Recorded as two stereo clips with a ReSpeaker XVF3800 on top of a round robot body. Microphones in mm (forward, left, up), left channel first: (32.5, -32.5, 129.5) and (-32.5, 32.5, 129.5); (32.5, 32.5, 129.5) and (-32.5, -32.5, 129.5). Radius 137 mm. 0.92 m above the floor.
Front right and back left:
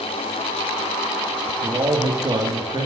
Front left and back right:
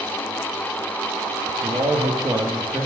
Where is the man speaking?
175° left, 2.5 m; by 2.9 s 160° left, 2.0 m.